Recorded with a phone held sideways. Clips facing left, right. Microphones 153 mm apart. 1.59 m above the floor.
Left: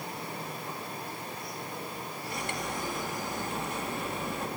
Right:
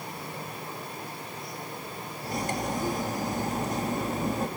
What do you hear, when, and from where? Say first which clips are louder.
2.2 s cutlery clinking: right 6 dB; 40° right (ahead or behind), 1.7 m